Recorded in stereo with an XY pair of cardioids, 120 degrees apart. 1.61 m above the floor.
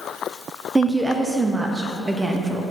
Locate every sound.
0.8 s a woman speaking: 20° right, 0.5 m